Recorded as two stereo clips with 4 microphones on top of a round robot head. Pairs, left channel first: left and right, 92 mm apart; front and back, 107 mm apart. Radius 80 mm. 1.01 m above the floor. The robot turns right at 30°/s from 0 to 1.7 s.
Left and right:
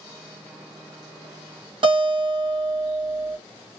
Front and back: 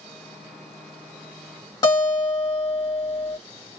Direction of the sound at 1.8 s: 60° right.